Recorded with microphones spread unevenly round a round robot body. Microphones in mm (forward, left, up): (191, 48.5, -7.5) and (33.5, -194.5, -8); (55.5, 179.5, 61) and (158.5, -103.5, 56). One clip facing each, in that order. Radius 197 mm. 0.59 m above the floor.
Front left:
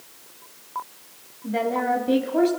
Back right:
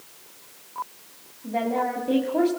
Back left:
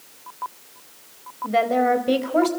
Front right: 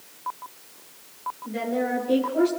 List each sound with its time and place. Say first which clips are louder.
1.4 s a woman speaking: front left 2 dB, back left 5 dB; 130° left, 3 m; by 2.5 s 140° left, 3 m